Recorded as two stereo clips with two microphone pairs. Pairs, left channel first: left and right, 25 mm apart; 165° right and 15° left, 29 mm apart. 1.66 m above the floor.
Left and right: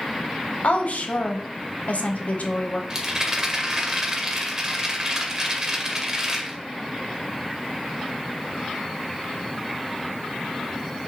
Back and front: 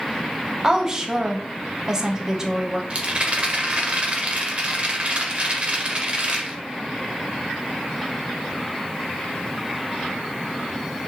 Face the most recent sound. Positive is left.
turn(degrees=-30)